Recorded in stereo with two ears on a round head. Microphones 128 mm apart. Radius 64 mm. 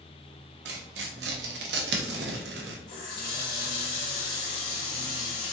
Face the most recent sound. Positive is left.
turn(degrees=70)  # may be behind; listen again after turning